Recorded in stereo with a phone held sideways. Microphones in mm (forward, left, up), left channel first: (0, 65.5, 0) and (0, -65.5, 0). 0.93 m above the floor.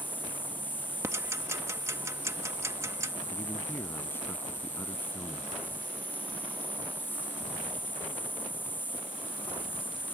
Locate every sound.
0.0 s an insect: 15° left (ahead or behind)
1.0 s ticking: 20° right (ahead or behind)
3.3 s a man speaking: 15° left (ahead or behind)